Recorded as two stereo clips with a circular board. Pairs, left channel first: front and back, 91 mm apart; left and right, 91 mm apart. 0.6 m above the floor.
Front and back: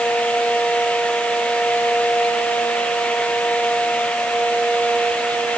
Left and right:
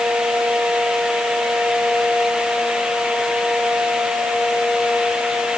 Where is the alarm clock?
No alarm clock in this recording.